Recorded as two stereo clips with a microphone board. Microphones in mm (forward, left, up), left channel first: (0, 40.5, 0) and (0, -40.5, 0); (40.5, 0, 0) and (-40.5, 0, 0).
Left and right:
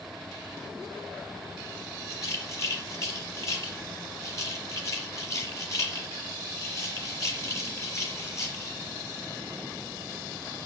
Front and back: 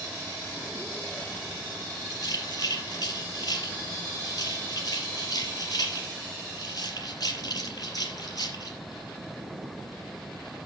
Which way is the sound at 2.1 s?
40° left.